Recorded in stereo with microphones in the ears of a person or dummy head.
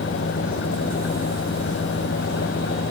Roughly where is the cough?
No cough in this recording.